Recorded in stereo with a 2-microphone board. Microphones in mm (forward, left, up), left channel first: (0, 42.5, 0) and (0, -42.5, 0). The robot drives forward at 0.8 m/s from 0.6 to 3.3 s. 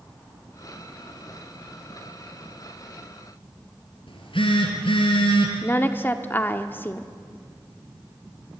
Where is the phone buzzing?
80° left, 3 m.